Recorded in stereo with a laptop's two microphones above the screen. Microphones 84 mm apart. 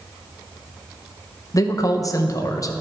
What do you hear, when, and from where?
1.5 s a man speaking: 40° left (ahead or behind), 0.6 m